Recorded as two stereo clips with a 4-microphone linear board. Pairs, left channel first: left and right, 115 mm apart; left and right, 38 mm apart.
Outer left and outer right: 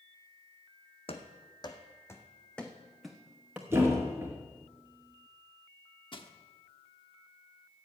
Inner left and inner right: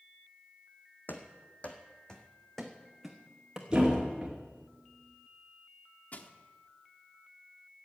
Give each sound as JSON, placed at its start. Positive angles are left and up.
{"t": 1.1, "sound": "running footsteps", "side_deg": 55, "distance_m": 1.7}
{"t": 3.7, "sound": "a thud", "side_deg": -20, "distance_m": 4.5}
{"t": 6.1, "sound": "crushing", "side_deg": 45, "distance_m": 1.1}